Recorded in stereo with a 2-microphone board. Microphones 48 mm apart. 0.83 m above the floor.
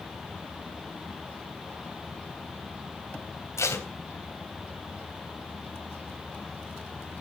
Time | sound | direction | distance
3.6 | tape being pulled | 75° left (ahead or behind) | 3 m